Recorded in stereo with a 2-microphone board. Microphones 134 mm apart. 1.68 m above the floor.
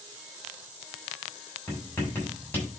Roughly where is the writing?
Centre.